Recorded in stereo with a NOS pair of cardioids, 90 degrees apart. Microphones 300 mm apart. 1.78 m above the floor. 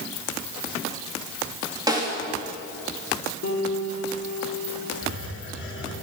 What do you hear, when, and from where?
1.9 s a snare drum: 15° right, 4 m
3.4 s a piano: 60° left, 3.5 m
5.0 s a hiss: 50° left, 5 m